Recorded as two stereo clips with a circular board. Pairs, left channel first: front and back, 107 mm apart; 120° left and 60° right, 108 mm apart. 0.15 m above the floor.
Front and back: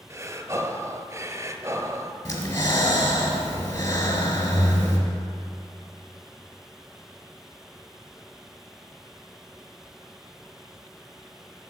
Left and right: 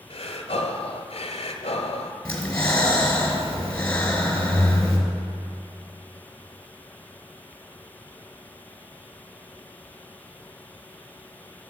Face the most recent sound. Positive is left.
turn(degrees=45)